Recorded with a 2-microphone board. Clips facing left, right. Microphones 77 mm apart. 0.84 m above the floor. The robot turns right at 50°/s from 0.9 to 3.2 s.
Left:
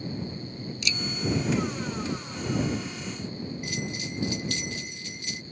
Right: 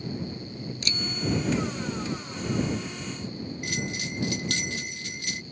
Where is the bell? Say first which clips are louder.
Right 1 dB; 75° right (ahead or behind).